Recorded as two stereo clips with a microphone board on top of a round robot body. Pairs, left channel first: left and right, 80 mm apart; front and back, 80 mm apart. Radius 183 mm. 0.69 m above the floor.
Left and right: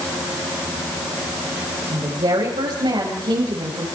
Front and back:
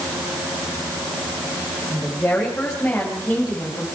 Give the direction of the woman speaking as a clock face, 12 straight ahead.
2 o'clock.